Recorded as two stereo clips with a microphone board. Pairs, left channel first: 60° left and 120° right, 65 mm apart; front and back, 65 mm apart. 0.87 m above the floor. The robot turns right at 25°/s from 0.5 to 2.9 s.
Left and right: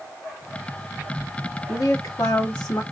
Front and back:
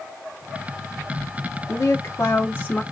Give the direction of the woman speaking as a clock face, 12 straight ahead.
11 o'clock.